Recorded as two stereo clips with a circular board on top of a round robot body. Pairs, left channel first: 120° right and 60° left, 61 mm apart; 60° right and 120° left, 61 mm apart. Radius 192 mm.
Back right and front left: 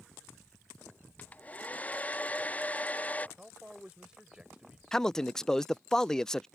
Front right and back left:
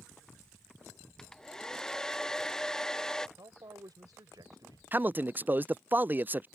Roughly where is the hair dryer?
Behind right.